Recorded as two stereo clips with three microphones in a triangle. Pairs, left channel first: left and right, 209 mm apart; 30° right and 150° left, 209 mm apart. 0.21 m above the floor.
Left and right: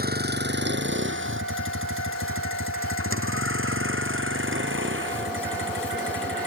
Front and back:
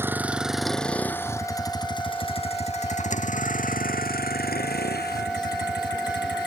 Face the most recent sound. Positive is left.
turn(degrees=-65)